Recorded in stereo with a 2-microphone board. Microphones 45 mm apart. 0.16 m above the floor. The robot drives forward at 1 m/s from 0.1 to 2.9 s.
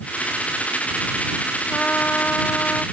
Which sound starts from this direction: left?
A trumpet, at 1.7 s.